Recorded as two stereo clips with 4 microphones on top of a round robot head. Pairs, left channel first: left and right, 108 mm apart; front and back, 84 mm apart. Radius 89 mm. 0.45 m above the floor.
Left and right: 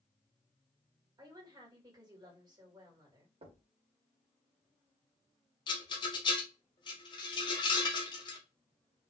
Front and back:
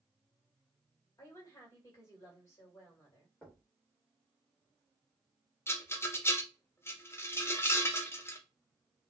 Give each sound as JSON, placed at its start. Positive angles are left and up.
{"t": 1.2, "sound": "a woman speaking", "azimuth_deg": -45, "distance_m": 1.9}
{"t": 3.4, "sound": "knocking", "azimuth_deg": -80, "distance_m": 1.2}
{"t": 5.7, "sound": "a rattle", "azimuth_deg": 55, "distance_m": 0.9}